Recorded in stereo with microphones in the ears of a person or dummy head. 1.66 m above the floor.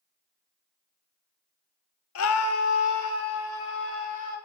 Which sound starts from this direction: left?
A scream, at 2.1 s.